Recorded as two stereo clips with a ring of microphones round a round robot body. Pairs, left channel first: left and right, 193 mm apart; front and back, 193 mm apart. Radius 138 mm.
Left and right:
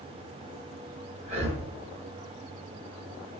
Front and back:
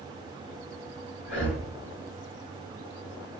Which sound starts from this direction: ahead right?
Breathing, at 1.2 s.